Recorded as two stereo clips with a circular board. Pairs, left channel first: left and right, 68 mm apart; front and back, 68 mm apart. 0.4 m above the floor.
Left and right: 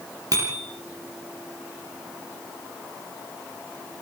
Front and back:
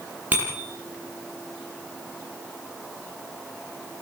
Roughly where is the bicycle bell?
Behind right.